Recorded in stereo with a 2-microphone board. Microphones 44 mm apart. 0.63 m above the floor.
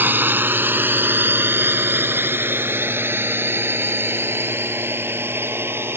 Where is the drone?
45° right (ahead or behind); by 6.0 s 60° right (ahead or behind).